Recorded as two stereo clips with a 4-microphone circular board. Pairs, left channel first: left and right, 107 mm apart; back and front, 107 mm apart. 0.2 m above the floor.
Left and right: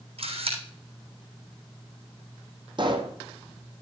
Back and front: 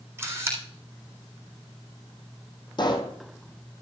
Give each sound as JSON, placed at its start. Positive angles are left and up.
{"t": 0.2, "sound": "a camera shutter", "azimuth_deg": -70, "distance_m": 3.5}
{"t": 2.8, "sound": "a pop", "azimuth_deg": -135, "distance_m": 1.4}